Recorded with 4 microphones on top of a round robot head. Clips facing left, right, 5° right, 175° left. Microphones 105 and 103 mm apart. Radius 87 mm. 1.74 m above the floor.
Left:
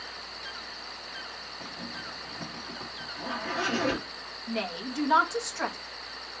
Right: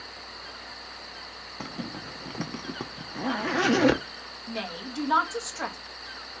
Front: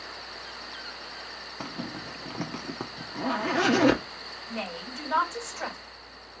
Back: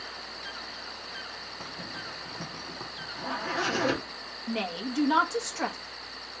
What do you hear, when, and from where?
1.6 s a zipper: 55° right, 0.6 m
4.5 s a woman speaking: 175° right, 1.4 m